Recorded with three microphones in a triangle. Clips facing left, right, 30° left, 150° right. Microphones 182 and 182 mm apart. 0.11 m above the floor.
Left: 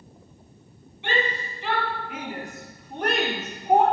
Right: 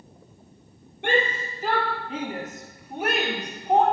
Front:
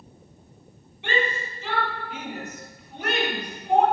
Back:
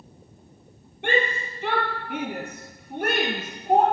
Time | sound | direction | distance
1.0 | a shout | 120° right | 3.5 m